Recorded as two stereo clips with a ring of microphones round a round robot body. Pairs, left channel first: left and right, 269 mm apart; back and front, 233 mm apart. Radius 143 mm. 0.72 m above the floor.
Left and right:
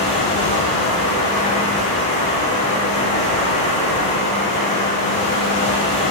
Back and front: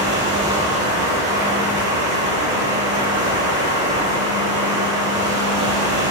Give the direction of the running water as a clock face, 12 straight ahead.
11 o'clock.